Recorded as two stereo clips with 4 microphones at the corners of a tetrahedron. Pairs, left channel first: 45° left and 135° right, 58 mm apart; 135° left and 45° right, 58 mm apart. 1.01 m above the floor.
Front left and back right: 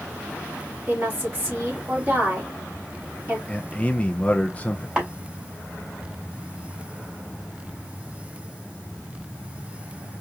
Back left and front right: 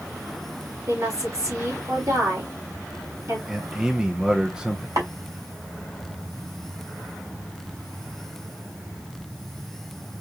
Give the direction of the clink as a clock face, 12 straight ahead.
I don't hear a clink.